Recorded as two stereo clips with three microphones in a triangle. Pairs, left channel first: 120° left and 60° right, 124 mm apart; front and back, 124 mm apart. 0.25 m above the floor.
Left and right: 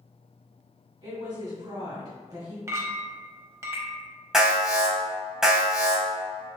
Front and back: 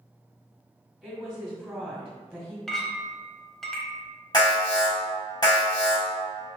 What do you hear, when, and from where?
1.0 s a woman speaking: 85° right, 1.6 m
2.7 s a clink: 85° right, 0.6 m
4.3 s an alarm: 25° left, 1.2 m